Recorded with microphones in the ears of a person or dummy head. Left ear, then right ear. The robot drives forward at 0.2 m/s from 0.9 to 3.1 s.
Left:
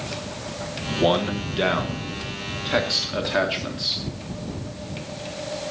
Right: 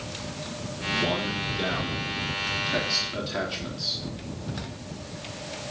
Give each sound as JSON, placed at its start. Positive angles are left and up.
{"t": 0.9, "sound": "a man speaking", "side_deg": 35, "distance_m": 1.2}